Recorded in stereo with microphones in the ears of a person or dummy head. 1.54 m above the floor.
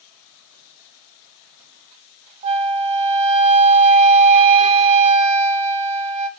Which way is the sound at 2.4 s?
35° right (ahead or behind).